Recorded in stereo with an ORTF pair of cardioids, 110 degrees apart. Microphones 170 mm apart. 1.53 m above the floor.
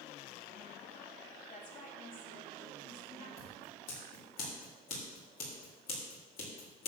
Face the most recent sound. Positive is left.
turn(degrees=60)